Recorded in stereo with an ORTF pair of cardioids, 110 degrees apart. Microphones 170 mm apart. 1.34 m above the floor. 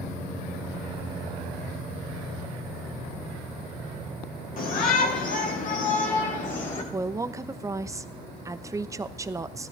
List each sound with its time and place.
4.6 s a shout: 55° left, 5 m; by 6.8 s 45° left, 6.5 m
6.9 s a woman speaking: 20° right, 0.9 m